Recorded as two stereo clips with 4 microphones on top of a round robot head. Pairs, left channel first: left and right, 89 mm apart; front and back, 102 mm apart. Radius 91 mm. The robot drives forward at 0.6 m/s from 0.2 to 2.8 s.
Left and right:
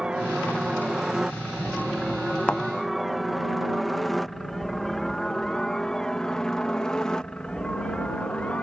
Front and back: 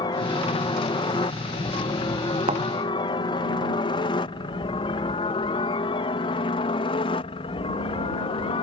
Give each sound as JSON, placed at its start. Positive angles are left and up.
{"t": 0.0, "sound": "a helicopter", "azimuth_deg": -10}
{"t": 2.5, "sound": "a thud", "azimuth_deg": 165}